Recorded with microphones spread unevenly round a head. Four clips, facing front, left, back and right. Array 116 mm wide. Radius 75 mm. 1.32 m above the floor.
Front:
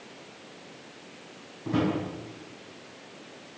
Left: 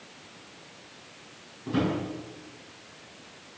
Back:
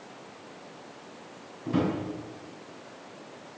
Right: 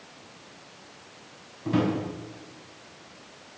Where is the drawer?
55° right, 5 m.